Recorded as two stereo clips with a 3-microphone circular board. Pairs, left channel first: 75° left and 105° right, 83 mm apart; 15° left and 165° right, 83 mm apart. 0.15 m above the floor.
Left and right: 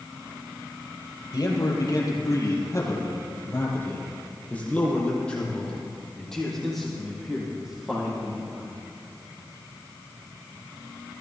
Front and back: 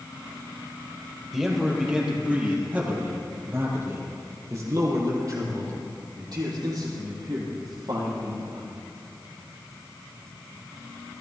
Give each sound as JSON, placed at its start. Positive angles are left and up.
{"t": 1.3, "sound": "a man speaking", "azimuth_deg": 110, "distance_m": 4.0}